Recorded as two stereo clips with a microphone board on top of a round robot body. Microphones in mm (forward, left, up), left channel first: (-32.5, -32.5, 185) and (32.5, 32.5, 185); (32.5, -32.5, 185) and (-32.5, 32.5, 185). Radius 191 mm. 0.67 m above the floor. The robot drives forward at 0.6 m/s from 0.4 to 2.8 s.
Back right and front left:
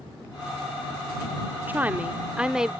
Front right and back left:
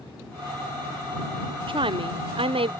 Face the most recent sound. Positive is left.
turn(degrees=130)